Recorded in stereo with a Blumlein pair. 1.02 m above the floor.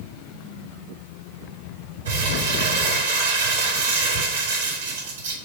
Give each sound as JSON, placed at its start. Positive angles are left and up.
{"t": 2.0, "sound": "crumpling", "azimuth_deg": -65, "distance_m": 2.5}